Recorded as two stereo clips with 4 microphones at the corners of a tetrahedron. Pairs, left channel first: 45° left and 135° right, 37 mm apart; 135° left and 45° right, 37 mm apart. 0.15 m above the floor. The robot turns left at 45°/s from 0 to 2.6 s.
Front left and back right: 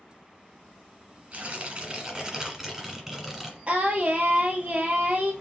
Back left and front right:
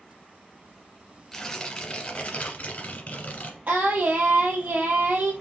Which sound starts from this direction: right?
Singing, at 3.7 s.